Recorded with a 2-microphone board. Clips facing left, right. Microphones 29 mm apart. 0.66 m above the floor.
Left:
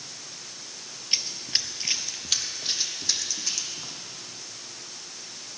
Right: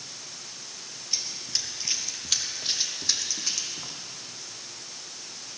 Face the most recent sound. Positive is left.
turn(degrees=-15)  # may be behind; listen again after turning